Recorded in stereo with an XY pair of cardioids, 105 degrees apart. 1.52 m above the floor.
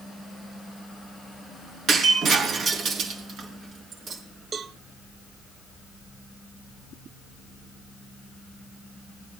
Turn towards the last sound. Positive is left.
turn(degrees=-45)